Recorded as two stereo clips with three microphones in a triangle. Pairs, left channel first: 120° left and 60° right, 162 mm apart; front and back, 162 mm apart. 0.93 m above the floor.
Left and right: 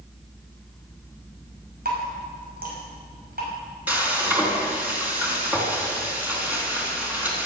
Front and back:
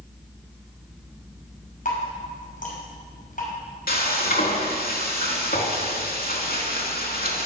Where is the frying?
20° left, 4 m.